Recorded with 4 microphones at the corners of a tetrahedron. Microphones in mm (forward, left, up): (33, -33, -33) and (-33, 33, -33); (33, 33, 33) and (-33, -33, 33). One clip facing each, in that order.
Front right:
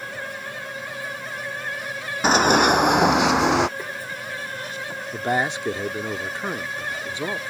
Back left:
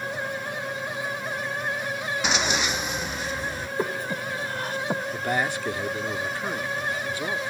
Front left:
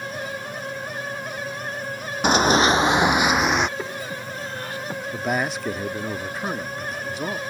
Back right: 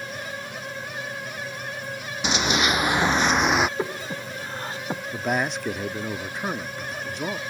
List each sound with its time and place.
2.2 s running footsteps: 5° left; by 3.7 s 50° right
3.8 s breathing: 165° left
5.1 s a man speaking: 40° right